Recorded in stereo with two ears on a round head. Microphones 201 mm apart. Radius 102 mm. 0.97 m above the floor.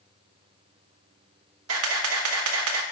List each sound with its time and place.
1.7 s a camera shutter: 65° right (ahead or behind), 1.2 m